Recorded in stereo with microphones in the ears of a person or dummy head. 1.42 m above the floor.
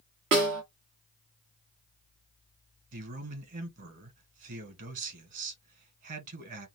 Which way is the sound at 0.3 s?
30° right (ahead or behind).